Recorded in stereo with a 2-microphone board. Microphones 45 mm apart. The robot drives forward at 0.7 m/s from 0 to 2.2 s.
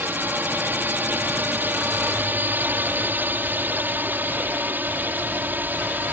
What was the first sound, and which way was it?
A drone, 45° right (ahead or behind).